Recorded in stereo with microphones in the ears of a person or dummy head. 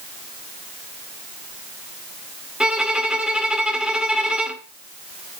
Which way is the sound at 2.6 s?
5° left (ahead or behind).